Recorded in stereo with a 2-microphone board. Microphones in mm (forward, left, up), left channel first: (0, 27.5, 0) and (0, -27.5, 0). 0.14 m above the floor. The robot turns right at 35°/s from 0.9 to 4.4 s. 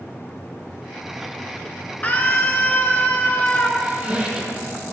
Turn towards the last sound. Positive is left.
turn(degrees=-15)  # may be behind; listen again after turning